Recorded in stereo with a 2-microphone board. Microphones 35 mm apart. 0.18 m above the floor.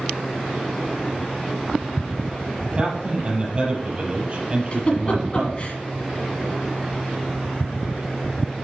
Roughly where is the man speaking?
Right.